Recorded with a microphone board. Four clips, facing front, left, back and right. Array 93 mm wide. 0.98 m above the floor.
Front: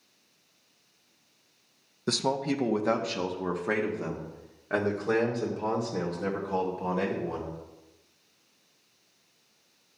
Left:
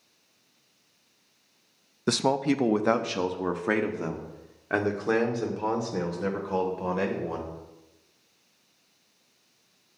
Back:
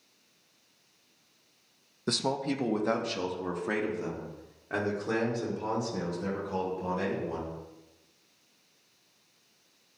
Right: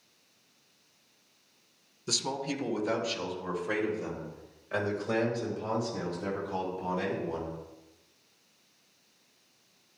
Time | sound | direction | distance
2.1 | a man speaking | 90° left | 0.7 m